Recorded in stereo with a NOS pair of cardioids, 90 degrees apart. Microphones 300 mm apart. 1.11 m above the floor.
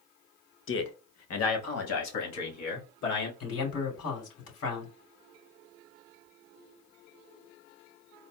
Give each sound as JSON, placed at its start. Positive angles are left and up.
{"t": 0.7, "sound": "a man speaking", "azimuth_deg": 45, "distance_m": 1.0}
{"t": 3.4, "sound": "a man speaking", "azimuth_deg": 55, "distance_m": 3.0}